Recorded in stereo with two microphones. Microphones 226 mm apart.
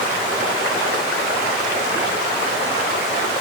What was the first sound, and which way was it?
Only background noise.